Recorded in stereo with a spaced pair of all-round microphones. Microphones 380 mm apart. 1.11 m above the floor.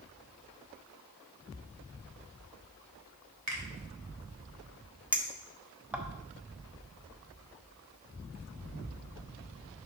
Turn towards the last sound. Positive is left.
turn(degrees=-5)  # may be behind; listen again after turning